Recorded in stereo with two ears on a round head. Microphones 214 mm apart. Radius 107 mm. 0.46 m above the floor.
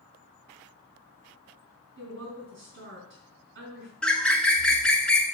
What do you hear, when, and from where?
2.0 s a woman speaking: 45° right (ahead or behind), 4.5 m
4.0 s a bird: 5° left (ahead or behind), 0.7 m